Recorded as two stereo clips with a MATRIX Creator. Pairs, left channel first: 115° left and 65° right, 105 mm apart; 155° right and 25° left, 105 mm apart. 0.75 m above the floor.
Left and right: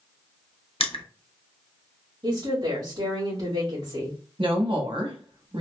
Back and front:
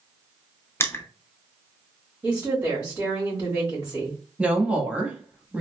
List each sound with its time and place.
0.8 s crushing: 135° left, 0.6 m
2.2 s a woman speaking: 45° right, 1.7 m
4.4 s a woman speaking: 55° right, 0.9 m